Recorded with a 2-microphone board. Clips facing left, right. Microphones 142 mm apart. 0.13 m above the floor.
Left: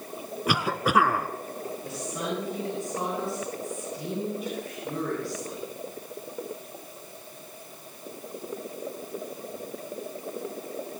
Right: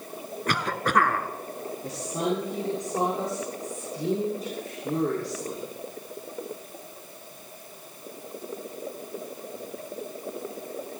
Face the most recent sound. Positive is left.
turn(degrees=-40)  # may be behind; listen again after turning